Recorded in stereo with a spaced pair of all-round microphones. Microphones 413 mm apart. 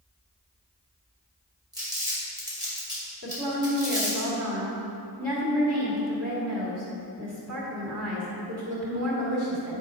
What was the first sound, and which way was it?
Crumpling, 10° right (ahead or behind).